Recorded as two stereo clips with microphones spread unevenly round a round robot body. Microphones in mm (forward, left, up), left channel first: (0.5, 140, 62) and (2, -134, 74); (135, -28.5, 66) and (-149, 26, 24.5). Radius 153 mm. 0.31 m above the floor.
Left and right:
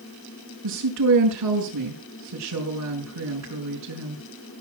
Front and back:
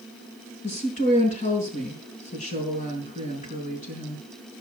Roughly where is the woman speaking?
Right.